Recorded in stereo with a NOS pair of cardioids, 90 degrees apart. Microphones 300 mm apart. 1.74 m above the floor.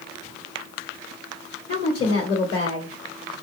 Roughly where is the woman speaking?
Ahead left.